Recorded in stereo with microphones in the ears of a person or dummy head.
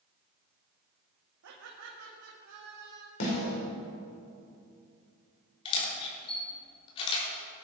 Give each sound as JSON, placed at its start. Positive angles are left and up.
{"t": 1.4, "sound": "laughter", "side_deg": -80, "distance_m": 2.0}
{"t": 3.2, "sound": "a snare drum", "side_deg": 75, "distance_m": 5.5}
{"t": 5.7, "sound": "a camera shutter", "side_deg": 30, "distance_m": 3.5}